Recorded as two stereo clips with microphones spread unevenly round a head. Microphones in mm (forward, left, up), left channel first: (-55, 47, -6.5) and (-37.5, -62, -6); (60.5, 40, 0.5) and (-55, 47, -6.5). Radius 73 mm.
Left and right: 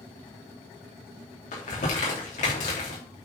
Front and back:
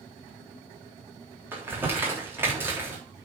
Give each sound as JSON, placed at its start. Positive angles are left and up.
{"t": 1.5, "sound": "crumpling", "azimuth_deg": 105, "distance_m": 3.5}